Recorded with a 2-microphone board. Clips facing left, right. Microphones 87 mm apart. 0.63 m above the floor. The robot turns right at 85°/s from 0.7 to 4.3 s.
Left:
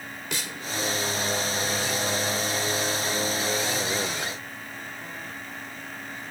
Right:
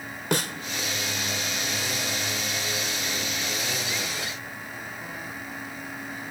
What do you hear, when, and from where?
0.3 s a snare drum: 55° right (ahead or behind), 1.0 m